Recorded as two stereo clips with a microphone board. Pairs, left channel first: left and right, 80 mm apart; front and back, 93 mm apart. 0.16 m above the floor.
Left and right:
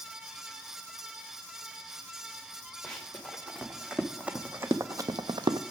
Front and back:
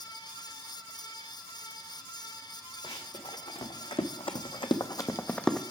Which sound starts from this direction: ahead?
Running footsteps, at 2.8 s.